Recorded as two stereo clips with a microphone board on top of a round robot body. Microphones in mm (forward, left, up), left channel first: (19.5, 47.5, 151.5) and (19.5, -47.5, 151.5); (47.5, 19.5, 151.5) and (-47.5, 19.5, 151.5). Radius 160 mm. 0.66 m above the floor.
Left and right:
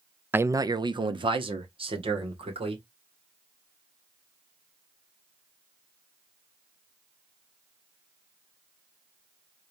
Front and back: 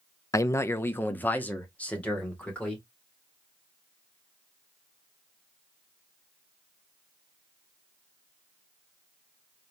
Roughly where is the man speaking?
Ahead right.